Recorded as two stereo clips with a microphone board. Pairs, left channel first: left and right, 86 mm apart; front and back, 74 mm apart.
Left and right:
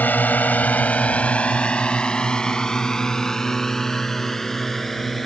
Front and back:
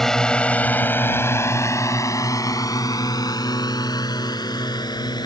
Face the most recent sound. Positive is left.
turn(degrees=0)